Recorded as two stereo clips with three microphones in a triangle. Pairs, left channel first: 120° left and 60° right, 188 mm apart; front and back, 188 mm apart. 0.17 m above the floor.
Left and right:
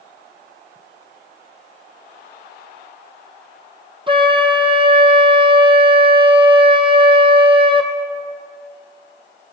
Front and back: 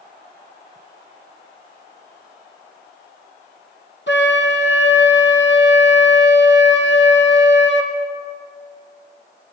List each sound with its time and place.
4.1 s a flute: 5° left, 2.5 m